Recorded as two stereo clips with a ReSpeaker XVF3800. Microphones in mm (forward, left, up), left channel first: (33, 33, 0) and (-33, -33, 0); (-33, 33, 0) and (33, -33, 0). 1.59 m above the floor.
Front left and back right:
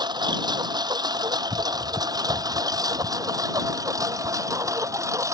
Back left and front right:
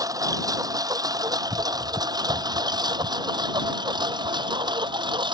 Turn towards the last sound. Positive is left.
turn(degrees=-80)